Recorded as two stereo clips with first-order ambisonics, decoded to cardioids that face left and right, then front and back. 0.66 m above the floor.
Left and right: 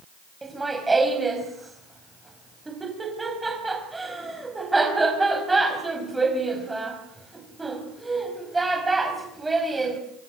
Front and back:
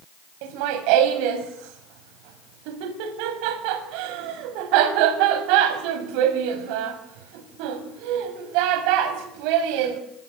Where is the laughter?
170° right, 4.5 m.